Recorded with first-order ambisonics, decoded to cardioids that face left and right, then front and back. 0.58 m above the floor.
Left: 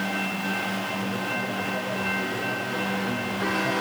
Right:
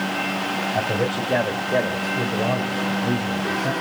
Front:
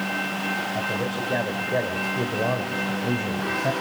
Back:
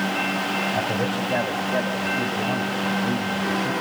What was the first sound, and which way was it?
A man speaking, 95° right.